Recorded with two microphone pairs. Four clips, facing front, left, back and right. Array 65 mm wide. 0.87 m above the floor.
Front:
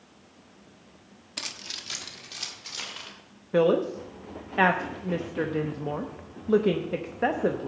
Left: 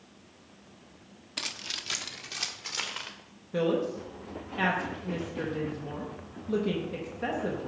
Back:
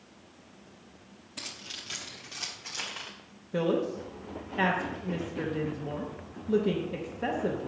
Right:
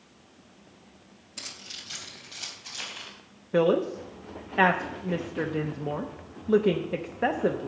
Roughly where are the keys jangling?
Ahead left.